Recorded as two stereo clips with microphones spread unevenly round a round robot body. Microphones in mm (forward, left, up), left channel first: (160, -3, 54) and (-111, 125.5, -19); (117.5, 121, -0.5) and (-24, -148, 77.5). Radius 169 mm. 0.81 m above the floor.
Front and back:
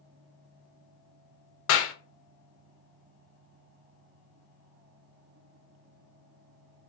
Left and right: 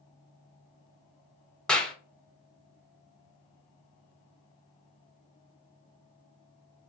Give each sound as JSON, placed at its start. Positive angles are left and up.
{"t": 1.7, "sound": "a clap", "azimuth_deg": 0, "distance_m": 0.5}